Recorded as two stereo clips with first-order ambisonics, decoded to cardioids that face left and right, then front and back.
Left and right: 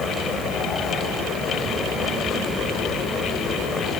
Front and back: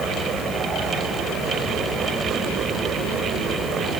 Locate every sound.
Only background noise.